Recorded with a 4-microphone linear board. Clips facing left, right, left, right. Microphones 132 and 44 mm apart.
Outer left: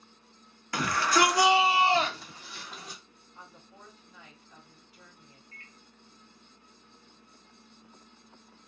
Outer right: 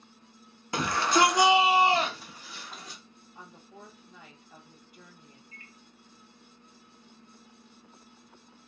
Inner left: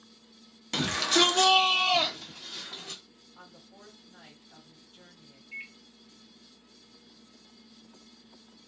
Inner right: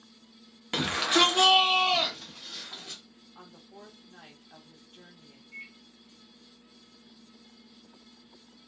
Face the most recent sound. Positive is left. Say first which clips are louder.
# outer right 2 dB, inner left 3 dB
turn(degrees=55)  # may be behind; listen again after turning